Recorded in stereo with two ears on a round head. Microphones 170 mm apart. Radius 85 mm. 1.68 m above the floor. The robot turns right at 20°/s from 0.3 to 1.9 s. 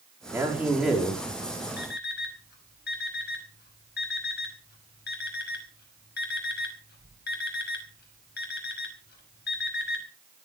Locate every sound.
0.3 s a man speaking: 10° right (ahead or behind), 4.5 m; by 1.2 s 5° left (ahead or behind), 4.5 m
1.8 s an alarm clock: 55° left (ahead or behind), 5 m